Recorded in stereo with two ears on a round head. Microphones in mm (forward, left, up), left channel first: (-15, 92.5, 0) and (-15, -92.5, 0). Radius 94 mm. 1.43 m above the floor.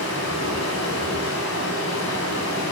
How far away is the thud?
I don't hear a thud.